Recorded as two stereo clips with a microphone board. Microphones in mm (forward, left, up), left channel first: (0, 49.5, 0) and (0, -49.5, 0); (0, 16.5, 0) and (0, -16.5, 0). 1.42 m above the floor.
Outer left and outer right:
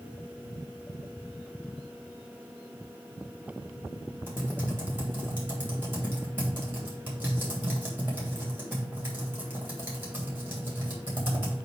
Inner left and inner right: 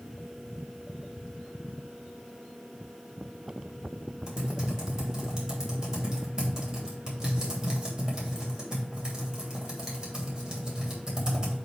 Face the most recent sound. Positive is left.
turn(degrees=-20)  # may be behind; listen again after turning